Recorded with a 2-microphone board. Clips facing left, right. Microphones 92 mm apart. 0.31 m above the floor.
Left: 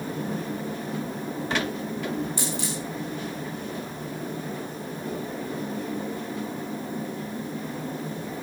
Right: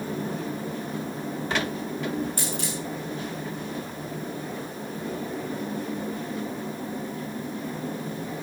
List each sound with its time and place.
2.4 s a dropped coin: 50° right (ahead or behind), 8.5 m